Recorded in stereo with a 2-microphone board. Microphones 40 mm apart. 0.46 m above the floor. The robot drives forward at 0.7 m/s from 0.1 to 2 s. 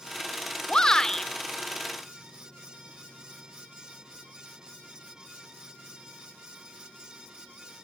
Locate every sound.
0.7 s a shout: 20° left (ahead or behind), 0.8 m; by 1.3 s 15° left (ahead or behind), 1.1 m